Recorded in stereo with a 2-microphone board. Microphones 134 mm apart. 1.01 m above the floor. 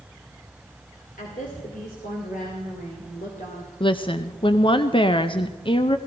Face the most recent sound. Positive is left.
turn(degrees=40)  # may be behind; listen again after turning